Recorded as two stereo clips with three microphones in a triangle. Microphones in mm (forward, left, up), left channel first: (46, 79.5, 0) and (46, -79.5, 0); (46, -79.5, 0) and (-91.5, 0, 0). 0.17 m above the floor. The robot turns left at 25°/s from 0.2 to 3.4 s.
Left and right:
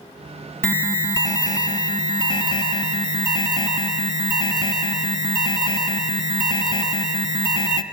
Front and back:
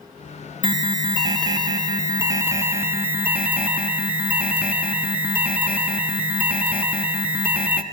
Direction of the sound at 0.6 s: 150° left.